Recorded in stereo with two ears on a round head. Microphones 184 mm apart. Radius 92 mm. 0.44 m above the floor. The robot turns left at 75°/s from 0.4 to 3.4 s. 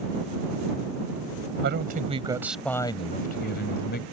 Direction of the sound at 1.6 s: 110° right.